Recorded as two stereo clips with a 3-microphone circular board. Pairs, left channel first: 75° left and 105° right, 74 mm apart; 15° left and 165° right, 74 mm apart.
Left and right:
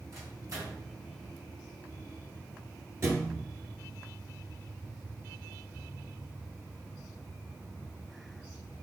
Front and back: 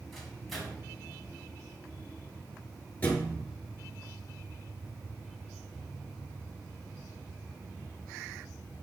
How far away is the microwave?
About 2.0 m.